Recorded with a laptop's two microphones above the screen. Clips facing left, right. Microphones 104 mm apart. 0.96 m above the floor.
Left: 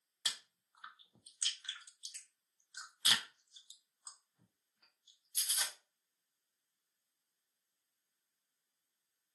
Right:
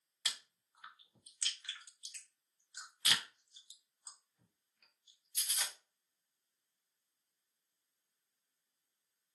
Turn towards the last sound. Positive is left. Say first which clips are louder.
# even
turn(degrees=25)  # may be behind; listen again after turning